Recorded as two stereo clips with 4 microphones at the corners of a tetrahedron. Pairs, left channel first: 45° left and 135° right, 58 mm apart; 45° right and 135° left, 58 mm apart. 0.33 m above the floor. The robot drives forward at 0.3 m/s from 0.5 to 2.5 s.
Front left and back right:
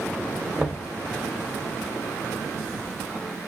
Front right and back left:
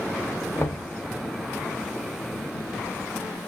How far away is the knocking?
About 1.2 m.